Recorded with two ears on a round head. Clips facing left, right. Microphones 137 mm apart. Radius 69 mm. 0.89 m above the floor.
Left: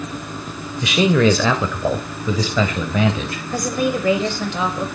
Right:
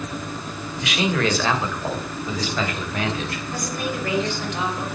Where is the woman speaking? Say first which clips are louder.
Left 9 dB; 65° left (ahead or behind), 4 m.